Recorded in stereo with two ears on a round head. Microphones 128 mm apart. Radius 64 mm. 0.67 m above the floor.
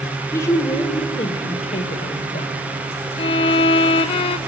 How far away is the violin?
About 0.6 m.